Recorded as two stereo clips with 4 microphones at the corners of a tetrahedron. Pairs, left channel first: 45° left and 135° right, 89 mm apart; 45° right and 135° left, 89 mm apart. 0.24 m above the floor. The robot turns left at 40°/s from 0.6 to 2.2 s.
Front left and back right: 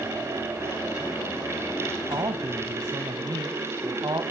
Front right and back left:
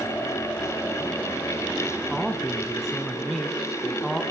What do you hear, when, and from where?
2.1 s a man speaking: 130° right, 1.8 m; by 4.2 s 135° right, 1.8 m